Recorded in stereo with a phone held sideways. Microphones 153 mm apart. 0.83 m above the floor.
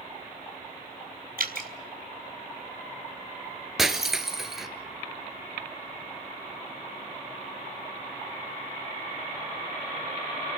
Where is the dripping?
70° right (ahead or behind), 3.5 m.